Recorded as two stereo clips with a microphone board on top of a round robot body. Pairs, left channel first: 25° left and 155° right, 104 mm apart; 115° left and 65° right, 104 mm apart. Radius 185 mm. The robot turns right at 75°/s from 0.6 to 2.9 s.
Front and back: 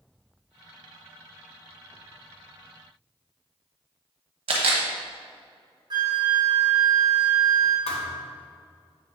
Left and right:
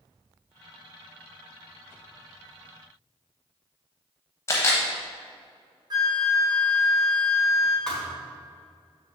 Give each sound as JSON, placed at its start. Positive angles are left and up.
{"t": 4.5, "sound": "a camera shutter", "azimuth_deg": 175, "distance_m": 0.8}
{"t": 5.9, "sound": "a flute", "azimuth_deg": -115, "distance_m": 0.9}
{"t": 7.9, "sound": "a thud", "azimuth_deg": 30, "distance_m": 1.3}